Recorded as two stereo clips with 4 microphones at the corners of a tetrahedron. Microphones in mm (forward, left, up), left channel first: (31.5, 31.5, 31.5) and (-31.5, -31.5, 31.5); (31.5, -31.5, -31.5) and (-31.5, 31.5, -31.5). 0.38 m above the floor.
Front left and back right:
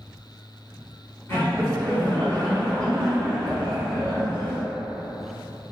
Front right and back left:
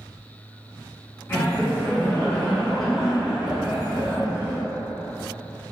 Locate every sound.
1.3 s laughter: straight ahead, 1.5 m; by 4.6 s 175° left, 1.4 m